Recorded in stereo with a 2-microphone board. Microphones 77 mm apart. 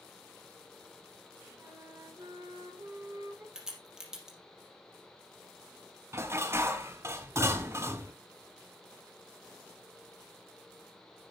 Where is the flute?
40° right (ahead or behind), 6.5 m.